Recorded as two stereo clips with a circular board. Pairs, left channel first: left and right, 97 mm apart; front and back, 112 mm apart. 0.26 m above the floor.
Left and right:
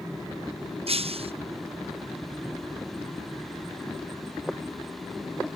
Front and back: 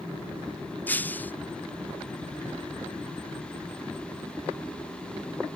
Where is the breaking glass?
75° right.